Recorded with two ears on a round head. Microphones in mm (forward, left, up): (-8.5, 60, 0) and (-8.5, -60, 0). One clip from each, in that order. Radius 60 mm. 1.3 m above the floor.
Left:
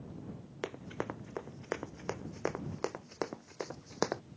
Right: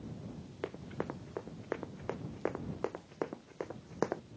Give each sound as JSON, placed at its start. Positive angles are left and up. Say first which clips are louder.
{"t": 0.6, "sound": "running footsteps", "louder": "left 1 dB", "side_deg": 80}